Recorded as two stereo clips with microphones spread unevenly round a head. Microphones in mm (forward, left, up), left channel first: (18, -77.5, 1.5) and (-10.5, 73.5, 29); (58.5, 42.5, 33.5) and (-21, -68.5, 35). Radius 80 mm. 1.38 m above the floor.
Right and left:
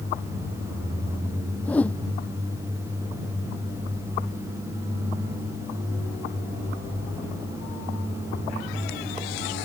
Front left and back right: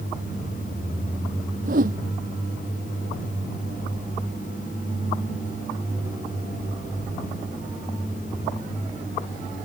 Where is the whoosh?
160° right.